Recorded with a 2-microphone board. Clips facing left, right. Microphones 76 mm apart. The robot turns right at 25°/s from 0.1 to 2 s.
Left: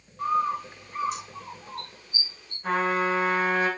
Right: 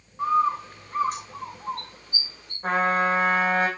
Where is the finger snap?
I don't hear a finger snap.